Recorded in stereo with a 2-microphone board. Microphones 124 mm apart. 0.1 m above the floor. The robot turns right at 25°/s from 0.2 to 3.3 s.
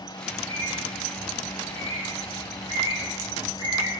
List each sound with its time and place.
0.3 s a bird: 60° right (ahead or behind), 4.5 m; by 3.9 s 35° right (ahead or behind), 4.5 m